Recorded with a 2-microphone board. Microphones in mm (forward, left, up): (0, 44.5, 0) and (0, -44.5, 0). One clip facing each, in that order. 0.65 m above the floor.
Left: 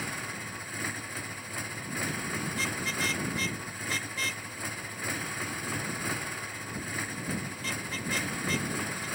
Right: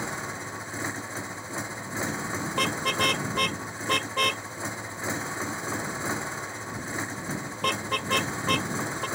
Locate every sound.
0.0 s a motorcycle: 25° right (ahead or behind)
2.5 s a car horn: 60° right (ahead or behind)